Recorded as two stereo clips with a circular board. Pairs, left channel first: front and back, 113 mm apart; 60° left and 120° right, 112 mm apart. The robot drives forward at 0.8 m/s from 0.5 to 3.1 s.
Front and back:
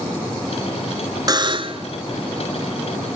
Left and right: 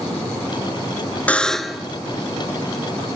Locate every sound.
1.3 s a buzzer: 135° left, 0.7 m; by 1.9 s 155° left, 1.1 m